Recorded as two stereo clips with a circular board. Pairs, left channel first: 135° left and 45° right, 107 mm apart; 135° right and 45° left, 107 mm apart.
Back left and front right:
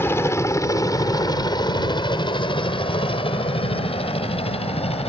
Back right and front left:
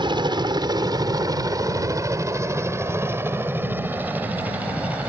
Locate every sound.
0.0 s a helicopter: 75° left; by 5.1 s 120° left